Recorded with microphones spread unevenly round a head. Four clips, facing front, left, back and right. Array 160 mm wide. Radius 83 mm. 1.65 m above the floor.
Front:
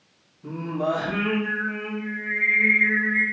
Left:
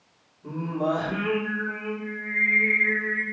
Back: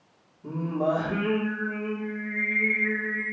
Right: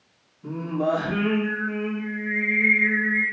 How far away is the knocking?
I don't hear knocking.